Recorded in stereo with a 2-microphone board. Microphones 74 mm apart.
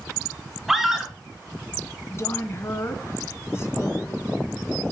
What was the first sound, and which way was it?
A scream, 5° right (ahead or behind).